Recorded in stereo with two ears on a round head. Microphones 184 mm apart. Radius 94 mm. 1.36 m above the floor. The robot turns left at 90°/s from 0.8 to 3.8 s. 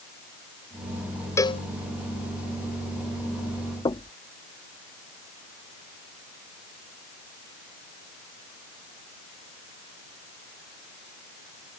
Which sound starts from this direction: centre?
A cowbell, at 1.4 s.